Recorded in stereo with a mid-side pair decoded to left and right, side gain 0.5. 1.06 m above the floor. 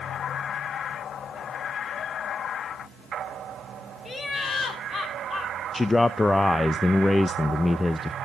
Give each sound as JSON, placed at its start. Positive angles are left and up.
{"t": 4.0, "sound": "laughter", "azimuth_deg": 35, "distance_m": 3.0}
{"t": 5.7, "sound": "a man speaking", "azimuth_deg": 20, "distance_m": 0.5}